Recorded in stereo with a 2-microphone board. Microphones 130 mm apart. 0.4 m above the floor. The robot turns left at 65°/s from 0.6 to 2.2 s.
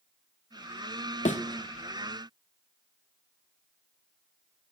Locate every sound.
1.2 s a thud: 70° left (ahead or behind), 0.9 m; by 1.4 s 65° left (ahead or behind), 0.9 m